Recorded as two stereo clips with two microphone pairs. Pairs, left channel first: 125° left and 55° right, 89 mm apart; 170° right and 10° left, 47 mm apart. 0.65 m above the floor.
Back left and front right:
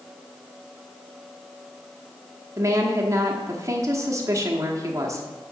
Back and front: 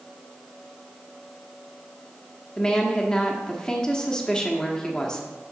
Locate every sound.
2.6 s a woman speaking: 100° right, 1.2 m